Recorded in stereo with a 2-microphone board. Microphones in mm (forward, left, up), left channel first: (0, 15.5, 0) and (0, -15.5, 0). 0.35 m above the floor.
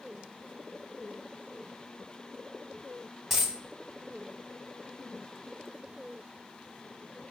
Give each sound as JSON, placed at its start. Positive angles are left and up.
{"t": 3.3, "sound": "a dropped coin", "side_deg": -5, "distance_m": 0.5}